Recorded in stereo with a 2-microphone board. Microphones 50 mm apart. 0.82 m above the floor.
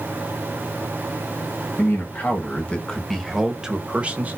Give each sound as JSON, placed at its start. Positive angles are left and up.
{"t": 1.8, "sound": "a man speaking", "side_deg": 45, "distance_m": 1.1}